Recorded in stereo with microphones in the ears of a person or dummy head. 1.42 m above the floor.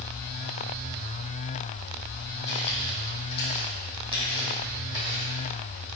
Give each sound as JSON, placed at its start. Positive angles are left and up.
{"t": 2.5, "sound": "footsteps", "side_deg": 40, "distance_m": 3.0}